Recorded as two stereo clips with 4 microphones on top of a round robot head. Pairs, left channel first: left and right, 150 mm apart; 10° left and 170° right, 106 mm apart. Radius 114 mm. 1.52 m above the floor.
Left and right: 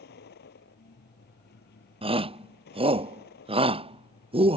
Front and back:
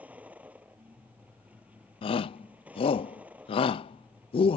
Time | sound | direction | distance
0.0 | a vehicle | 110° left | ?
2.0 | a shout | 35° right | ?